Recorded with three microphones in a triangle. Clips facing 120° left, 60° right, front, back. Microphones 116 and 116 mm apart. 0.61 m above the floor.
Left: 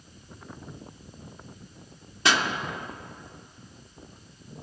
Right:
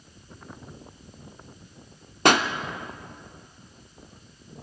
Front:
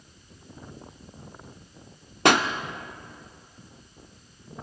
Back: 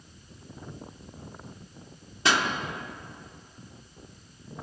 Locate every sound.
2.2 s a pop: 25° right, 0.5 m